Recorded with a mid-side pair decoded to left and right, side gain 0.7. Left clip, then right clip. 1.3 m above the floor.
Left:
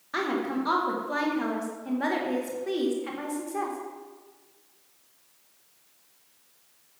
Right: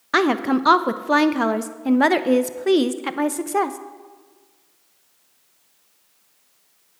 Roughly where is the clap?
No clap in this recording.